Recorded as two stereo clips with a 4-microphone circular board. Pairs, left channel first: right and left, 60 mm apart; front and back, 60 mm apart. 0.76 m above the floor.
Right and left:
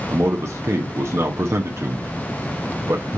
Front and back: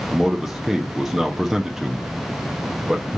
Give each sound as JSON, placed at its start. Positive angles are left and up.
{"t": 0.1, "sound": "a man speaking", "azimuth_deg": 100, "distance_m": 0.5}